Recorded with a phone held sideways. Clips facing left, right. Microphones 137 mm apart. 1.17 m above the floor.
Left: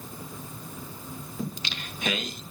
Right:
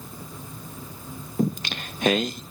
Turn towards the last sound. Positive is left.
turn(degrees=-55)  # may be behind; listen again after turning